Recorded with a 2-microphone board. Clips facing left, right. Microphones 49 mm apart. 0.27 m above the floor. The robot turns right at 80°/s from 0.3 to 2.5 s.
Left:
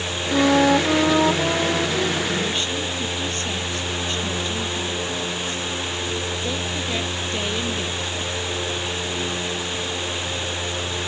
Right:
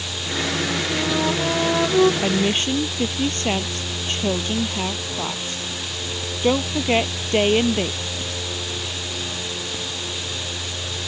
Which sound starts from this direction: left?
A flute, at 0.3 s.